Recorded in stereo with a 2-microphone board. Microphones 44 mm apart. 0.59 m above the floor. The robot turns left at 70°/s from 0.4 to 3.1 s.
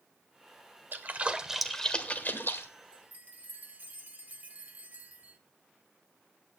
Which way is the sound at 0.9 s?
45° right (ahead or behind).